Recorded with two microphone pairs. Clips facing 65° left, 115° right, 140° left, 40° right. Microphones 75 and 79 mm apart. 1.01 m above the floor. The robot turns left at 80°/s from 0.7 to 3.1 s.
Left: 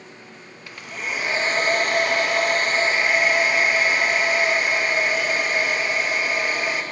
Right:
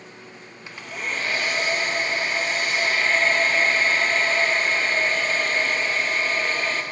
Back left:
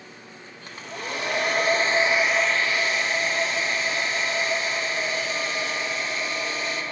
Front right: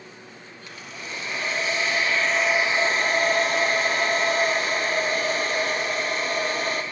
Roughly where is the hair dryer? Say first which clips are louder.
Even, back left 5 dB; behind.